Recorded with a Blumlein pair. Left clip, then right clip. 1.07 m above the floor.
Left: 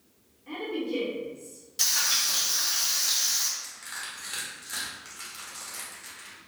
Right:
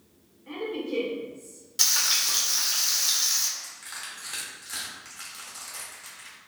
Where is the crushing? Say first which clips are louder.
Left 1 dB; straight ahead, 0.8 m.